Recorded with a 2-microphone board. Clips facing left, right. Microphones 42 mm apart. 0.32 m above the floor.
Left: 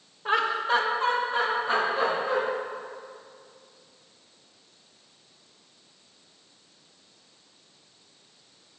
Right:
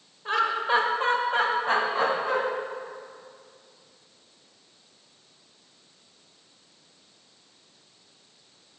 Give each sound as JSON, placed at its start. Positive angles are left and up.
{"t": 0.2, "sound": "laughter", "side_deg": 15, "distance_m": 0.8}